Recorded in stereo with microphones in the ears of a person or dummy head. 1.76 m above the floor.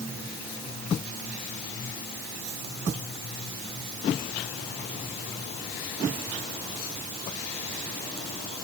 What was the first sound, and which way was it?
Only background noise.